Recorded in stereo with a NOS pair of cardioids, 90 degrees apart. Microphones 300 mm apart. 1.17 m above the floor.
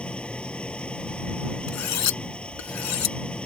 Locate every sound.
0.0 s an engine running: 5° left
1.7 s cutlery clinking: 65° left